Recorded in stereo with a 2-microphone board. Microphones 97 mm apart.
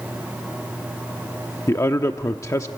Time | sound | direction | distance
1.7 | a man speaking | 30° left (ahead or behind) | 0.8 m